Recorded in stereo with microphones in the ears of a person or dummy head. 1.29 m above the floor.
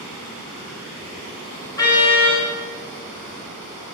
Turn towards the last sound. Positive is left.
turn(degrees=15)  # may be behind; listen again after turning